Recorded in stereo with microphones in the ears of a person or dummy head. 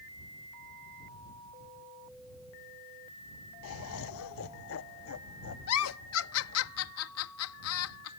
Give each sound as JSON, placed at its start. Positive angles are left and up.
{"t": 3.6, "sound": "laughter", "side_deg": 70}
{"t": 5.7, "sound": "a giggle", "side_deg": 70}